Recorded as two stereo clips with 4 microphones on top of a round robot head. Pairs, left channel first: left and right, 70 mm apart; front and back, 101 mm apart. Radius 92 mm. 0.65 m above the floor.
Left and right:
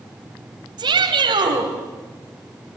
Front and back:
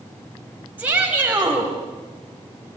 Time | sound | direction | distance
0.8 | a shout | 100° right | 4 m